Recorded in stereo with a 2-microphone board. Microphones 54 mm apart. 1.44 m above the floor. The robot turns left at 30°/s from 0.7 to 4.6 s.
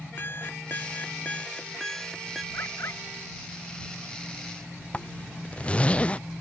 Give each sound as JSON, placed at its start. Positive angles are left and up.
{"t": 0.2, "sound": "an alarm clock", "azimuth_deg": 45}
{"t": 2.5, "sound": "a bird", "side_deg": 50}
{"t": 4.9, "sound": "a zipper", "side_deg": 20}